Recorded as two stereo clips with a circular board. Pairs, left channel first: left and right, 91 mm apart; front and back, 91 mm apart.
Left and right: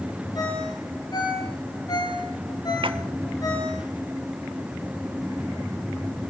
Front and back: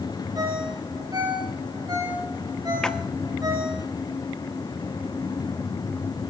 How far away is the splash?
About 1.1 m.